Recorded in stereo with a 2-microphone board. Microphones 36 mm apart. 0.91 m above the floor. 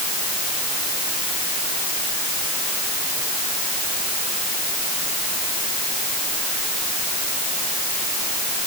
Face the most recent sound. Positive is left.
No sound to turn to.